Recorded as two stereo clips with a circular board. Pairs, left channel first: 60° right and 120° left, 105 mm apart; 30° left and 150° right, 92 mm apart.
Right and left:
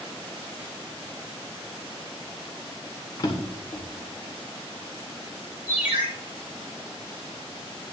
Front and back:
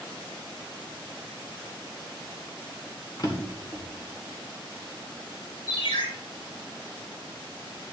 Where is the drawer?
10° right, 1.9 m.